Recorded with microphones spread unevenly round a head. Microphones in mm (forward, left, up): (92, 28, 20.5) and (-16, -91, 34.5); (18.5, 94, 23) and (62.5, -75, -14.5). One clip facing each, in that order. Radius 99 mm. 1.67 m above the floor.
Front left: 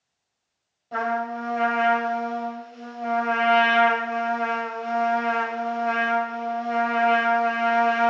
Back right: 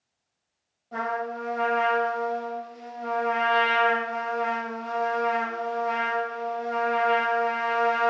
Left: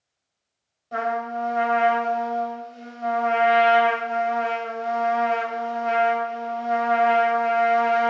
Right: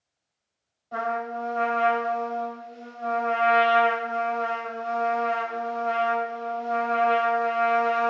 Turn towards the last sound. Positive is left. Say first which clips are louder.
# front left 3 dB, left 3 dB
turn(degrees=115)